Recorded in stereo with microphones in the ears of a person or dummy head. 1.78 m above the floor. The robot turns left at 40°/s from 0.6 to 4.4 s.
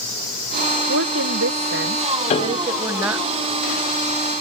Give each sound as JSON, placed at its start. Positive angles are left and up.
{"t": 0.9, "sound": "a woman speaking", "azimuth_deg": -80}
{"t": 2.3, "sound": "a piano", "side_deg": 35}